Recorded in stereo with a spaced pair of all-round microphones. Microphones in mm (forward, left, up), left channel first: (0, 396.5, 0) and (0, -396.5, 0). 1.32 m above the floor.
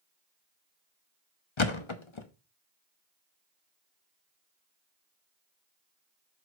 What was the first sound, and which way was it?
A thud, 40° left (ahead or behind).